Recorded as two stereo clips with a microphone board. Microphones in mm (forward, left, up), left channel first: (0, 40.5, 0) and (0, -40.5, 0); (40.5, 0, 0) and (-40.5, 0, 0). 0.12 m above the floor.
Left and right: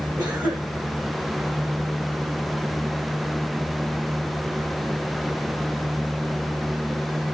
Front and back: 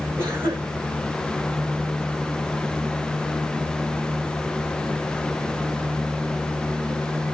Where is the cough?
120° right, 6.5 m.